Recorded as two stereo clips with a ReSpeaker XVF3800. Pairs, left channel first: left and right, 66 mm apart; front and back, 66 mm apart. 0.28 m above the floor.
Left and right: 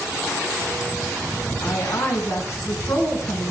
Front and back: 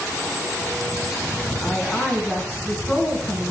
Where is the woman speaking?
55° left, 3 m.